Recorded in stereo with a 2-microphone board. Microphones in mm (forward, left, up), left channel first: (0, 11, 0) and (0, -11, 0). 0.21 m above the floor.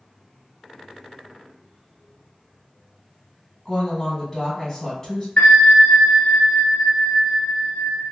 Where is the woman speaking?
25° left (ahead or behind), 1.8 m.